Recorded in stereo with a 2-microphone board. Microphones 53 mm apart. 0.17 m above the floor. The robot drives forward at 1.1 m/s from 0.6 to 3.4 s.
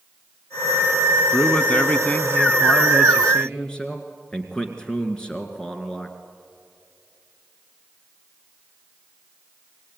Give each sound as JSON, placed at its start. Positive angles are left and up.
{"t": 1.3, "sound": "a man speaking", "side_deg": 25, "distance_m": 1.4}